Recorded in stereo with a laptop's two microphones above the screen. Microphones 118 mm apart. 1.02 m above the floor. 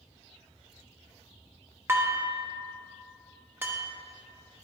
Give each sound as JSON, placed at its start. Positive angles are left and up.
{"t": 1.9, "sound": "dishes clattering", "side_deg": -20, "distance_m": 0.7}